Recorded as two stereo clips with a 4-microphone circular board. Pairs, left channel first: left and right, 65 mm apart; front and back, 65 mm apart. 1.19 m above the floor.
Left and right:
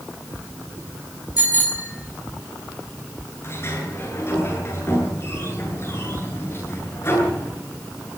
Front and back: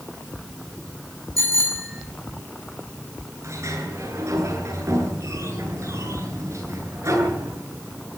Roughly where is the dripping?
No dripping in this recording.